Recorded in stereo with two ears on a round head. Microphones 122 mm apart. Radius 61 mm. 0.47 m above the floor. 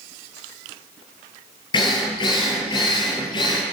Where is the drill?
35° left (ahead or behind), 4 m.